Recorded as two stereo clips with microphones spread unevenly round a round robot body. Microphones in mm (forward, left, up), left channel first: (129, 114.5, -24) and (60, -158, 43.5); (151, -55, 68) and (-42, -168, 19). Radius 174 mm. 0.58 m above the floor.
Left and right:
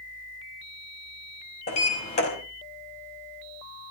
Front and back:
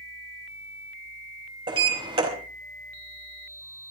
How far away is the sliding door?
About 4 m.